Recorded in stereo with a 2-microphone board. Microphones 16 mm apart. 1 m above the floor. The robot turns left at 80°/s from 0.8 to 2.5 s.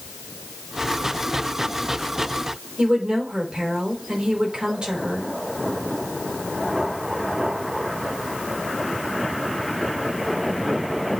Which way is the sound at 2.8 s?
80° right.